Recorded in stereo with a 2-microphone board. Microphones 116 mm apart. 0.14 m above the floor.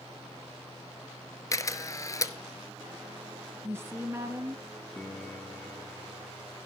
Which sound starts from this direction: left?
A camera shutter, at 1.5 s.